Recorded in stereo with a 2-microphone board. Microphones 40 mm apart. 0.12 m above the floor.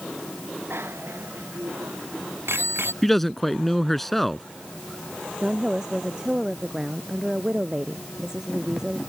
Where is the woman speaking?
15° right (ahead or behind).